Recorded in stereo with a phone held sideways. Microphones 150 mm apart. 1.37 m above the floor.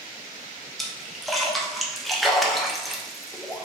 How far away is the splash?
About 0.6 m.